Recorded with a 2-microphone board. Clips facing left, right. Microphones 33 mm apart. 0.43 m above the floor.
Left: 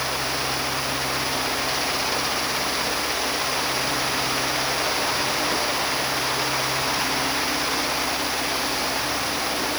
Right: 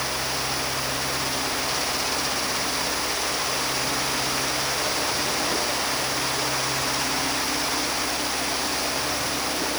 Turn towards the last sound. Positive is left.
No sound to turn to.